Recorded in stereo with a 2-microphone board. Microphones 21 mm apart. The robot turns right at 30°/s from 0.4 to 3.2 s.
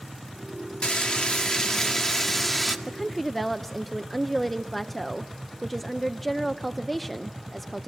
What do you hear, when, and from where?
0.8 s frying: 115° left, 1.6 m; by 2.8 s 175° left, 1.6 m
2.9 s a woman speaking: 15° left (ahead or behind), 0.6 m; by 7.9 s 5° left (ahead or behind), 0.6 m